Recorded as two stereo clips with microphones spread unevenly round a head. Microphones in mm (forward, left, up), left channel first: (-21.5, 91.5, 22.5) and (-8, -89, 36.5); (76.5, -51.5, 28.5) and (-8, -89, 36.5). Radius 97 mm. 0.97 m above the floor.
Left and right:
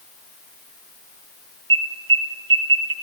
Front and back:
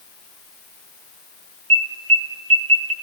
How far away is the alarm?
About 4 m.